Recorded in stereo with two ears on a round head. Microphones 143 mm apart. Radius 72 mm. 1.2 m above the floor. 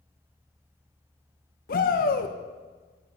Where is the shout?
60° left (ahead or behind), 1.3 m.